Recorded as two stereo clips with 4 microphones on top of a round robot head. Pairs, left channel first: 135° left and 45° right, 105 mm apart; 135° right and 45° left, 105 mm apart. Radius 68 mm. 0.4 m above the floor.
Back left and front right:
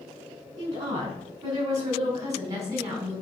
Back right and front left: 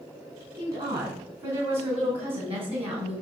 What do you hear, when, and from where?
0.6 s a woman speaking: 10° left, 5 m; by 3.2 s 20° left, 3.5 m